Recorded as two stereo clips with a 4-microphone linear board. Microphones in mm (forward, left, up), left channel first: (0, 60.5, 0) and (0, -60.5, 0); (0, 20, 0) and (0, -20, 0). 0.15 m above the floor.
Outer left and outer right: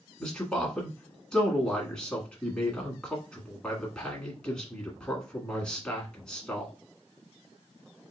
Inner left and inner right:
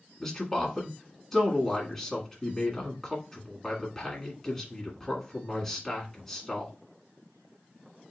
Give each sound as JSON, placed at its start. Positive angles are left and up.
{"t": 0.2, "sound": "a man speaking", "side_deg": 5, "distance_m": 1.5}